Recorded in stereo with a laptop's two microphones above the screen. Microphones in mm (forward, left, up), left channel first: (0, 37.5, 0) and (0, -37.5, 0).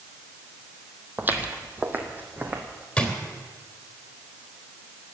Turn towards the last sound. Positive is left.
turn(degrees=15)  # may be behind; listen again after turning